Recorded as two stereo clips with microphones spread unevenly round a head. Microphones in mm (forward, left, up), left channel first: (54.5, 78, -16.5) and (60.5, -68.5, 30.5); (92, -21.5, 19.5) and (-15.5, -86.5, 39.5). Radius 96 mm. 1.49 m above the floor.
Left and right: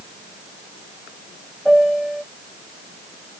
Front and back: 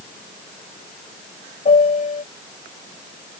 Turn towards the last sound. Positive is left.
turn(degrees=0)